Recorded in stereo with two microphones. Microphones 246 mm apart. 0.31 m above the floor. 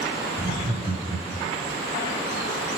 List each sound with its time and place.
0.4 s laughter: 35° right (ahead or behind), 1.1 m; by 1.7 s 5° left (ahead or behind), 1.0 m